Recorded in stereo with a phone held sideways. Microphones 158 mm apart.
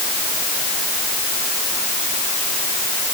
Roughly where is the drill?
No drill in this recording.